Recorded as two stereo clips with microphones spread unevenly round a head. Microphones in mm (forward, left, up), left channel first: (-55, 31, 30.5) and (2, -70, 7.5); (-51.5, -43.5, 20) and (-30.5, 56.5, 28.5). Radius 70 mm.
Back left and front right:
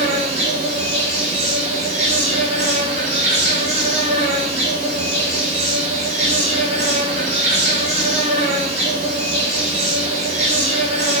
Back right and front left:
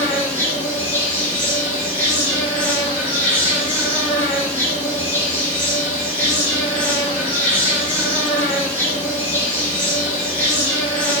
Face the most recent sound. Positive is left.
turn(degrees=-20)